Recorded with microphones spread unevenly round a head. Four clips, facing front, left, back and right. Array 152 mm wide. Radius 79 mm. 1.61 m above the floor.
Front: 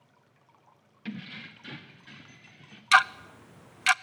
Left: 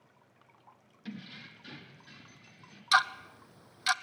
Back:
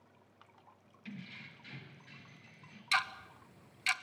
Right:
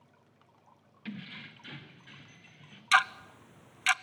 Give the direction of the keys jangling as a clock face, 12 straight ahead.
12 o'clock.